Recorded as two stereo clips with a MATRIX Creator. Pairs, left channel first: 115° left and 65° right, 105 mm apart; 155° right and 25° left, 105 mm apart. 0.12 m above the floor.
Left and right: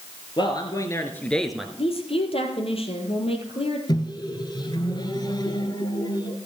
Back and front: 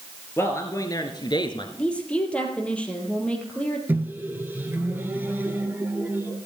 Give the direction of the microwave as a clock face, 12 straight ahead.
9 o'clock.